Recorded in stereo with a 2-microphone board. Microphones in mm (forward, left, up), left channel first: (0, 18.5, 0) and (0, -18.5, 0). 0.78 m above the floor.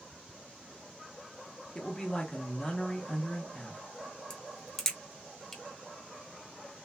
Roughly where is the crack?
Centre.